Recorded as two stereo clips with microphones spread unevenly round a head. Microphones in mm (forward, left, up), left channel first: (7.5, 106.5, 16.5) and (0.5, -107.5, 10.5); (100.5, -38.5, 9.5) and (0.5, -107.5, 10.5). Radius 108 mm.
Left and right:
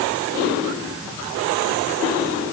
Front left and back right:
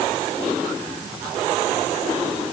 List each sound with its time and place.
Only background noise.